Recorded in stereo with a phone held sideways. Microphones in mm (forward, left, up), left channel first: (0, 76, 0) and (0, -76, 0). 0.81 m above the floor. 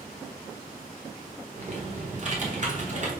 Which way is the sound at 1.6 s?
50° right (ahead or behind).